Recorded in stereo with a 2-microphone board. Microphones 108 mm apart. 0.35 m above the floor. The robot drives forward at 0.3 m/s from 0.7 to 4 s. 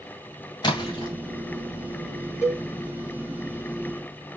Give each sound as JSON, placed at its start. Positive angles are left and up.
{"t": 0.6, "sound": "a splash", "side_deg": 40, "distance_m": 2.5}
{"t": 2.4, "sound": "a cowbell", "side_deg": 25, "distance_m": 4.0}